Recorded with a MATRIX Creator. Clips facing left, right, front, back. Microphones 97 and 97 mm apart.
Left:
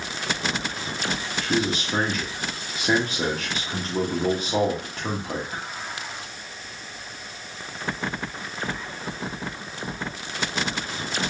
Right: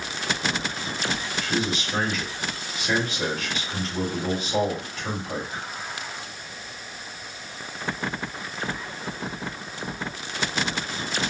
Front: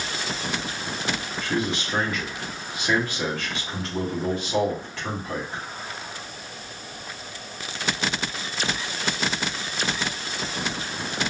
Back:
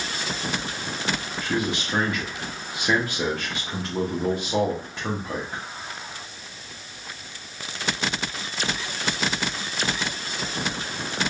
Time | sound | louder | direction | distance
1.4 | a man speaking | left 3 dB, even | 115° left | 1.3 m